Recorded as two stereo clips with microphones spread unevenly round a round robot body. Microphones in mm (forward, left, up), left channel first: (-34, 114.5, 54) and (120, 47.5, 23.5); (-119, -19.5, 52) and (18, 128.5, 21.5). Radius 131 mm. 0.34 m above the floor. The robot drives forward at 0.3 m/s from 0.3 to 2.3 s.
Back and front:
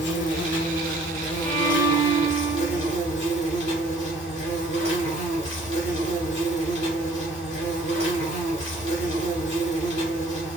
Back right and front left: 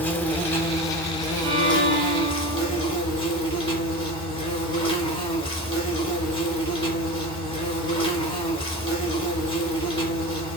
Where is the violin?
105° left, 1.4 m; by 2.9 s 115° left, 1.5 m.